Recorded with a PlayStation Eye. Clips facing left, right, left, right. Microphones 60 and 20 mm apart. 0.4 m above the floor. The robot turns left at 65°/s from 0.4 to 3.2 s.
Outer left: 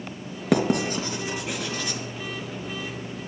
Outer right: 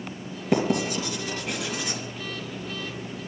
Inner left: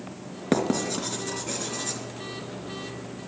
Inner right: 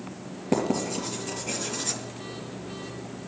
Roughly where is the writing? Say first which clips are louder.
Outer left 1 dB, inner left 1 dB; left.